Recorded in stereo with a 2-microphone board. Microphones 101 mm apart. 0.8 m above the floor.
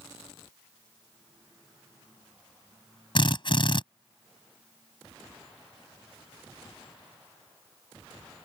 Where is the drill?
50° left (ahead or behind).